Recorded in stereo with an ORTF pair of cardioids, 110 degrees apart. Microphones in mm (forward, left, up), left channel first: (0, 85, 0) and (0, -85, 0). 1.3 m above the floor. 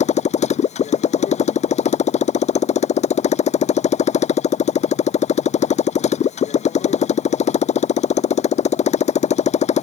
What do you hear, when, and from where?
0.0 s a motorcycle: 45° left